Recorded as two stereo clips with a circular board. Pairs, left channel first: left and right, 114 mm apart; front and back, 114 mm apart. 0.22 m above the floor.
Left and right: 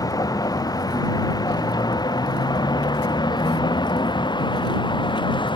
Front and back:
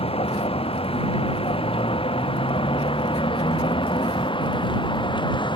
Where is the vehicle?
30° left; by 5.6 s 45° left.